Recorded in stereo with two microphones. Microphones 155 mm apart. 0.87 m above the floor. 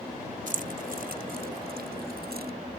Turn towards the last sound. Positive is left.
turn(degrees=-85)